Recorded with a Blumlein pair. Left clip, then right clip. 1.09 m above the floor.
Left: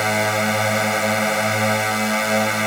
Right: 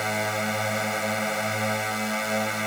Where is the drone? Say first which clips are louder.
Left 7 dB; 20° left.